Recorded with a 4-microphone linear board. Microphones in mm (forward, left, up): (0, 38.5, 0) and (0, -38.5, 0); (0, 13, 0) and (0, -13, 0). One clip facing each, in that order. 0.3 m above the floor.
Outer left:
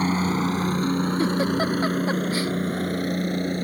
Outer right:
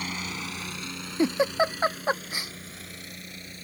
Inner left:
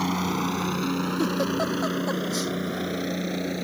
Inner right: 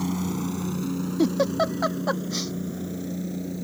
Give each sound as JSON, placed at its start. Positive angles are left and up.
{"t": 0.0, "sound": "a helicopter", "side_deg": 40}
{"t": 1.2, "sound": "a giggle", "side_deg": -20}